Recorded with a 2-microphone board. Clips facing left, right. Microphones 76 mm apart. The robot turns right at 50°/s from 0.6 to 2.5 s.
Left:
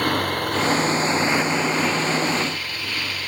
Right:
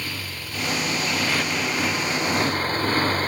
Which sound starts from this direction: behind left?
A motorcycle, at 0.0 s.